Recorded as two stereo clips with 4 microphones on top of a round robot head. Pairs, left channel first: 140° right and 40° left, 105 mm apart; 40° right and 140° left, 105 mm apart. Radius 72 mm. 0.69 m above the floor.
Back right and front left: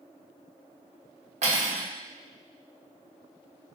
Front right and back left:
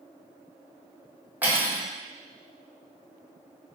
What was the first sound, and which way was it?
Cutlery clinking, 65° left.